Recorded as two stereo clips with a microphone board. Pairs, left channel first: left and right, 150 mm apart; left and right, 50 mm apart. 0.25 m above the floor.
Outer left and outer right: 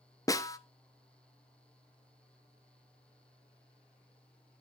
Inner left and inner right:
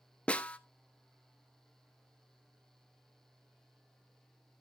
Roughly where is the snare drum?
Left.